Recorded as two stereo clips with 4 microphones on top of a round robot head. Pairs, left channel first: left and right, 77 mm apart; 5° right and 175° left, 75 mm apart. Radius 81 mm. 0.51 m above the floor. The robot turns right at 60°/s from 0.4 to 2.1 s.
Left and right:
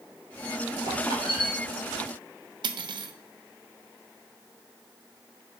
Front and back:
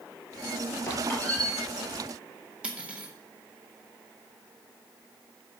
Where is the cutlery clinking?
105° right, 0.8 m.